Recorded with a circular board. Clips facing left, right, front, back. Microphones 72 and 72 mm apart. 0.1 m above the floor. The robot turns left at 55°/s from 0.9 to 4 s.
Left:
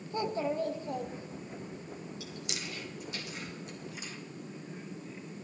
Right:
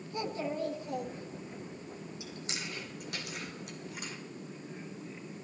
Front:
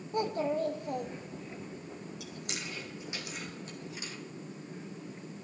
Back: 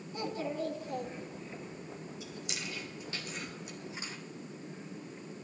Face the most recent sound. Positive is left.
turn(degrees=-120)